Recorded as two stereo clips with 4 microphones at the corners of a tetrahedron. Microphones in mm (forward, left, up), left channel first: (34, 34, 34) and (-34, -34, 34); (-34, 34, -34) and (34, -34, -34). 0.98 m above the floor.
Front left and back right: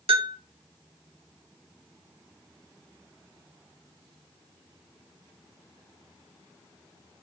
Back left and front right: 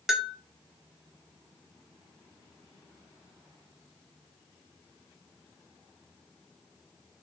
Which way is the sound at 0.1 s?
130° right.